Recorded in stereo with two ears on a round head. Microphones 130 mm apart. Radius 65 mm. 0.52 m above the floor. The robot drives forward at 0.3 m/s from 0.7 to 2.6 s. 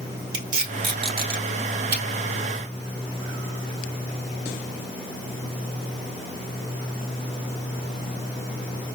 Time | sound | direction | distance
0.3 | tape being pulled | 65° right (ahead or behind) | 3 m